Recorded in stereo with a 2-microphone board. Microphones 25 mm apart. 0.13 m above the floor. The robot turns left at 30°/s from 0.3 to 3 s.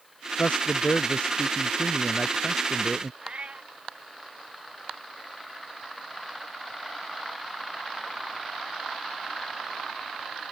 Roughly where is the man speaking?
Left.